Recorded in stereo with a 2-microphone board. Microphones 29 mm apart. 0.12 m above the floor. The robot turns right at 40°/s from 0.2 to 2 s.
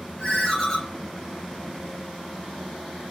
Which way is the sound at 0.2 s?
30° left (ahead or behind).